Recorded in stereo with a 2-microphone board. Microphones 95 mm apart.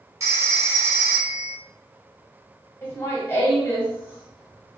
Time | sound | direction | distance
0.2 | a phone ringing | 35° right (ahead or behind) | 0.9 m
2.8 | laughter | 25° left (ahead or behind) | 1.7 m